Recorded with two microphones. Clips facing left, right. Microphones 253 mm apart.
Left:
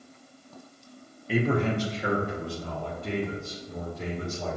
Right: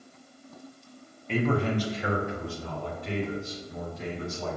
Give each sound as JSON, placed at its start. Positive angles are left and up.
{"t": 1.3, "sound": "a man speaking", "side_deg": 5, "distance_m": 0.8}